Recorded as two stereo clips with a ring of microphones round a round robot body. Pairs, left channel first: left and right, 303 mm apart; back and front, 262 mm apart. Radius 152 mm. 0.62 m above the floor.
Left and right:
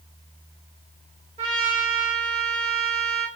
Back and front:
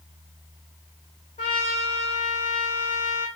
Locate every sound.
1.4 s a trumpet: 135° right, 0.9 m